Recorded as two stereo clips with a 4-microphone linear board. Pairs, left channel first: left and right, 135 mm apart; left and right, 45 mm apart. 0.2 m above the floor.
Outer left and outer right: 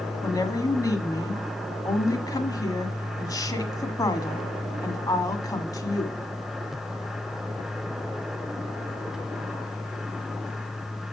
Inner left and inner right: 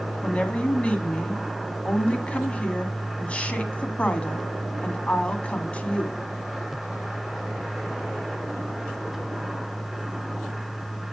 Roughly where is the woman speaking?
Left.